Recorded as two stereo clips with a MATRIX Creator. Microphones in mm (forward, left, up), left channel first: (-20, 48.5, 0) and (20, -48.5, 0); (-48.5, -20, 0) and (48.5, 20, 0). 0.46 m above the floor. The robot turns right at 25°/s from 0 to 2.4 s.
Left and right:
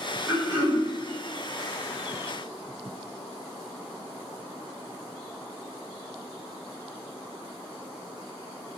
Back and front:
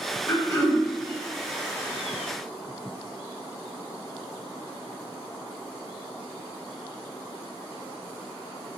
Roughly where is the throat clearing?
Behind right.